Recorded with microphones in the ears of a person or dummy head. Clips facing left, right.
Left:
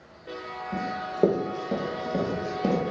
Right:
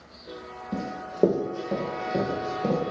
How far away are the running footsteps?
About 3 m.